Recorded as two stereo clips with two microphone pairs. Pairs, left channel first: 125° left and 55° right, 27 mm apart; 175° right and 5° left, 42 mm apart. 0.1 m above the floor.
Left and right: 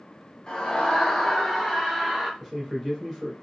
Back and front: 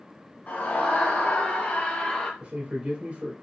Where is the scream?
170° left, 1.8 m; by 2.3 s 135° right, 1.5 m.